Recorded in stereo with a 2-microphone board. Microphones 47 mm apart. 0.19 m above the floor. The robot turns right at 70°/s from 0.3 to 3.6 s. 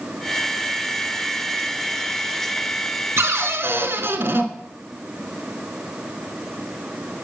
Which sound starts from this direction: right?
A cupboard door, at 3.2 s.